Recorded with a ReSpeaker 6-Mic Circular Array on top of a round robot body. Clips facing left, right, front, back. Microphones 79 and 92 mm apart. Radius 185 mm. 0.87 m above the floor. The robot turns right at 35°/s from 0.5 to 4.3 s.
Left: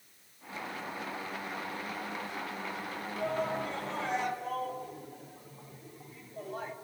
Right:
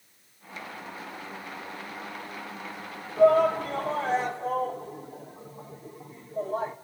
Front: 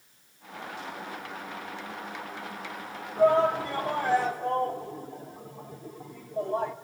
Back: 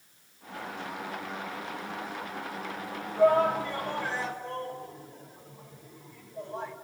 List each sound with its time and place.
3.2 s a shout: 70° right, 3 m; by 6.8 s 30° right, 3 m